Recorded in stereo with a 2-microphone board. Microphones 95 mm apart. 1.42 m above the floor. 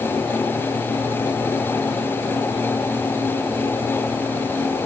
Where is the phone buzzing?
No phone buzzing in this recording.